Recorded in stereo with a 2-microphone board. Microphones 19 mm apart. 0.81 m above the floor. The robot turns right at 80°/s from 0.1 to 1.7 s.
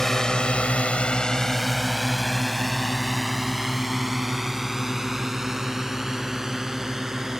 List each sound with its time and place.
0.0 s a drone: 20° left (ahead or behind); by 7.4 s 30° right (ahead or behind)